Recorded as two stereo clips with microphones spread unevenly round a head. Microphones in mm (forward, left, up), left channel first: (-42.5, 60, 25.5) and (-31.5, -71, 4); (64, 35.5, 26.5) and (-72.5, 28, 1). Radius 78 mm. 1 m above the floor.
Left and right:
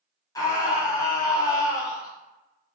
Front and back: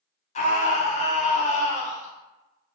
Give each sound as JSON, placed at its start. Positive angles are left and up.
{"t": 0.3, "sound": "a scream", "azimuth_deg": 30, "distance_m": 0.9}